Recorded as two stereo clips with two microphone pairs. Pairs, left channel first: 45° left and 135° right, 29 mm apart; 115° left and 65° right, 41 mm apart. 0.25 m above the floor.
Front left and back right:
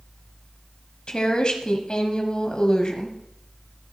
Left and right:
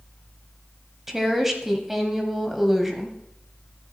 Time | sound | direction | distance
1.1 | a woman speaking | 10° left | 1.4 m